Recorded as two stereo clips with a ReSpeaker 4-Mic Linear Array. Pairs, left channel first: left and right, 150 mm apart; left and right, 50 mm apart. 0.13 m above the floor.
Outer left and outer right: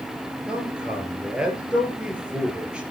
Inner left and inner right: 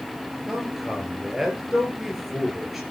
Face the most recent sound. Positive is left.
turn(degrees=-5)  # may be behind; listen again after turning